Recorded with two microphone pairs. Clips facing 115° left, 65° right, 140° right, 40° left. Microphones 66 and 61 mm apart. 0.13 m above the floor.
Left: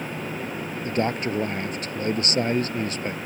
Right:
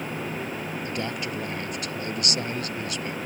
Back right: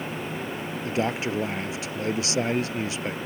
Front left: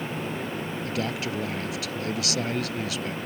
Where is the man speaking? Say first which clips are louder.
Left 9 dB, back right 5 dB; 160° left.